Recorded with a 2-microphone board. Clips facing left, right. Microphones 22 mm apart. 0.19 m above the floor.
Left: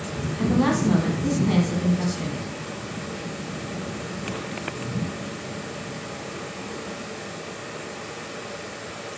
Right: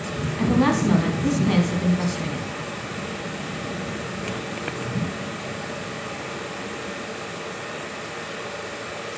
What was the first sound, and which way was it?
A woman speaking, 20° right (ahead or behind).